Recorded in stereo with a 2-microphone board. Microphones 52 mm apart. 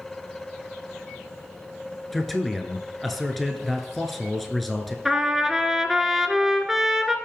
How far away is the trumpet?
About 0.9 m.